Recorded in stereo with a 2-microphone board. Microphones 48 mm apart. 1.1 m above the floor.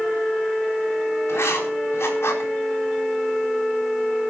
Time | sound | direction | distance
1.3 | writing | 80° left | 3.5 m